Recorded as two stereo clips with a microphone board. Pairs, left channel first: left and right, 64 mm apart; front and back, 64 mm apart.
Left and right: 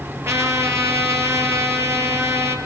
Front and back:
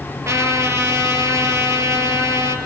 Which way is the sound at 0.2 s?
135° right.